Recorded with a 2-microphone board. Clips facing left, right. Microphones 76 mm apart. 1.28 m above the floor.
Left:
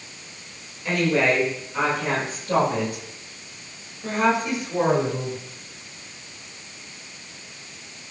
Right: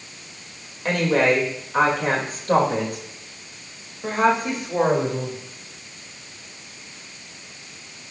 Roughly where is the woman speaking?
Right.